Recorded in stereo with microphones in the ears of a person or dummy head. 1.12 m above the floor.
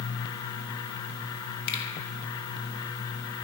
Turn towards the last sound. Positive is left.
turn(degrees=55)  # may be behind; listen again after turning